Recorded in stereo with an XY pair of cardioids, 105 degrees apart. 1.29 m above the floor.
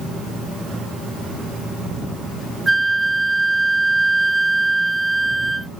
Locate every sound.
2.7 s a flute: 10° right